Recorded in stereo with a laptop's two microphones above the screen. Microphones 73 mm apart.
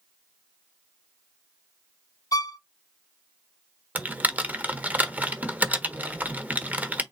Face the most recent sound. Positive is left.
turn(degrees=-25)  # may be behind; listen again after turning